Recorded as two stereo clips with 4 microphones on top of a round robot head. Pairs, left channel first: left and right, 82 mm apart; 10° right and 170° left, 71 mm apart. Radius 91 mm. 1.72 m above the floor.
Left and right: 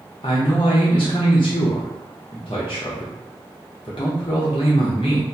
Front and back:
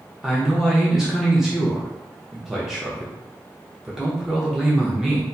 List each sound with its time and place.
0.2 s a man speaking: 90° left, 0.5 m